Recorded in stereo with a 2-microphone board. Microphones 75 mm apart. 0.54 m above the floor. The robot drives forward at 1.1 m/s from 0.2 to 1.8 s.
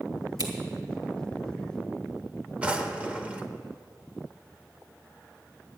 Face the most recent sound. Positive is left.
turn(degrees=-15)  # may be behind; listen again after turning